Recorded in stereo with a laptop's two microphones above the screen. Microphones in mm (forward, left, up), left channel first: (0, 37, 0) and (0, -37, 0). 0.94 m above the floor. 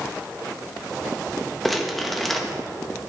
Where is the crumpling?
Centre (ahead or behind), 0.7 m.